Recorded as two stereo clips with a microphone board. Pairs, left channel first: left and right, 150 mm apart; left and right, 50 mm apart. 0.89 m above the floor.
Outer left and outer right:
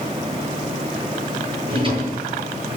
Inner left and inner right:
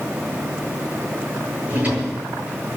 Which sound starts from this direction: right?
A drawer, at 1.7 s.